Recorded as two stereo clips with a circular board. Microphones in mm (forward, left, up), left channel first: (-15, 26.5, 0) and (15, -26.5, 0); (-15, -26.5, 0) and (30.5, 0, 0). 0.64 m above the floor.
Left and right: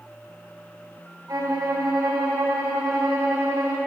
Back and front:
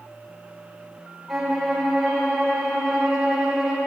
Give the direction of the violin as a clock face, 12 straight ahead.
2 o'clock.